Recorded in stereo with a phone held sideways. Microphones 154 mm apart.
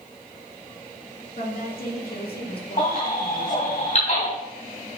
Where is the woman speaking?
70° left (ahead or behind), 3 m; by 3.8 s 45° left (ahead or behind), 1.5 m.